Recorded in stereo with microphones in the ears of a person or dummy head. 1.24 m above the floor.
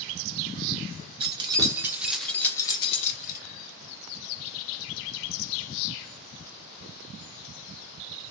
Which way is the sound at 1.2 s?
30° right (ahead or behind).